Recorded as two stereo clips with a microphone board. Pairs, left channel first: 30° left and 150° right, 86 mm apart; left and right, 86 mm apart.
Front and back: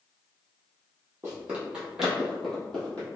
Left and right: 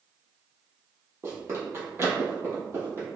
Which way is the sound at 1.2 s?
110° right.